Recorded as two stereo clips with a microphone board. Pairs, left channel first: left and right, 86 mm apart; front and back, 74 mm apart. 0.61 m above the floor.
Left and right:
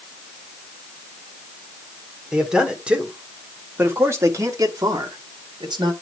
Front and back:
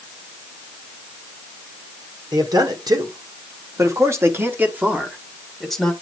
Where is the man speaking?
175° right, 1.7 m; by 5.9 s 85° right, 1.3 m.